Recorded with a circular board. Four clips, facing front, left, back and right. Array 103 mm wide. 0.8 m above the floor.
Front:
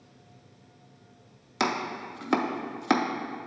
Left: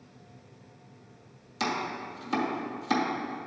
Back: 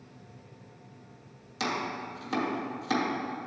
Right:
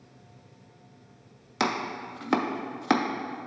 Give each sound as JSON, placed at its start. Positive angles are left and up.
{"t": 1.6, "sound": "chopping", "azimuth_deg": -50, "distance_m": 0.5}